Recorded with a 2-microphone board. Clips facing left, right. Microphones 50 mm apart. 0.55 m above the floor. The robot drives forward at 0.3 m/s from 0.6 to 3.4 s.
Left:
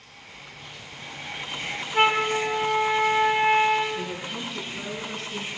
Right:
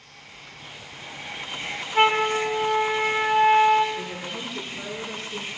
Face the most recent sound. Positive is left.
turn(degrees=60)  # may be behind; listen again after turning